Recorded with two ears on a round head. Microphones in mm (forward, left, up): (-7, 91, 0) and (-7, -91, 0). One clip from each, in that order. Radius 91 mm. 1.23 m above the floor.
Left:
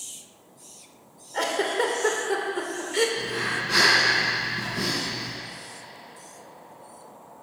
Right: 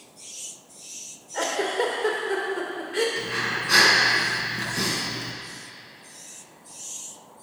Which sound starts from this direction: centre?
A giggle, at 1.3 s.